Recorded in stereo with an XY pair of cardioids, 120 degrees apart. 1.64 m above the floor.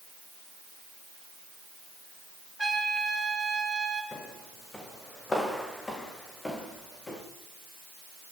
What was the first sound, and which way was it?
A trumpet, 5° right.